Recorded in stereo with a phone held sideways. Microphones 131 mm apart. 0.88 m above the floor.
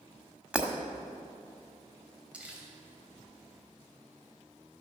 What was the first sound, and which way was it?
Breaking glass, 10° right (ahead or behind).